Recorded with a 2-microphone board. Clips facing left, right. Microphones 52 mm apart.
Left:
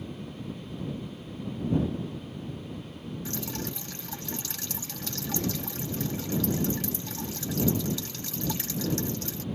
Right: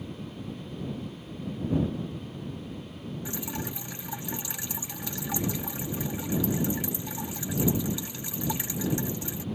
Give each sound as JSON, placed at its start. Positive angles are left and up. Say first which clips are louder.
{"t": 3.2, "sound": "dripping", "louder": "even", "side_deg": -15}